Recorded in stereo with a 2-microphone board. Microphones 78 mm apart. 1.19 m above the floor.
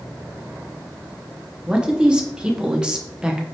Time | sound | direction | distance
1.7 | a man speaking | 10° right (ahead or behind) | 0.8 m